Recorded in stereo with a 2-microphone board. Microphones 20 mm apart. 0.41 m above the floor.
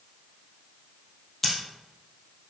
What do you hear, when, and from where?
1.4 s scissors: 10° left (ahead or behind), 3 m